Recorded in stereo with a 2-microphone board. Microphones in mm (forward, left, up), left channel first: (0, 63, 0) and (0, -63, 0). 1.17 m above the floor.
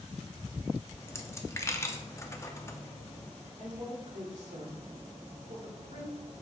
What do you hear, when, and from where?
0.9 s a dropped coin: 20° left (ahead or behind), 0.7 m
3.6 s a woman speaking: 65° right (ahead or behind), 2.5 m